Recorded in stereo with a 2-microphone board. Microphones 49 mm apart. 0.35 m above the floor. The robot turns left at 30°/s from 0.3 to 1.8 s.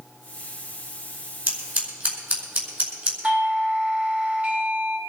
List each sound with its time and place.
1.5 s scissors: 40° right (ahead or behind), 5 m; by 3.1 s 30° right (ahead or behind), 5 m
3.2 s a doorbell: 30° right (ahead or behind), 2.5 m